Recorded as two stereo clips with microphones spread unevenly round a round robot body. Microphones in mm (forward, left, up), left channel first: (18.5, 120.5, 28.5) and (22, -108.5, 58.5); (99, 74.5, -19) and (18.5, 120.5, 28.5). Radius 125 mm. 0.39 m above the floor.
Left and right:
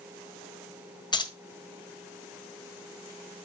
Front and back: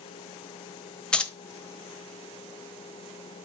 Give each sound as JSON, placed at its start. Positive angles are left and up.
{"t": 1.1, "sound": "keys jangling", "azimuth_deg": 25, "distance_m": 1.2}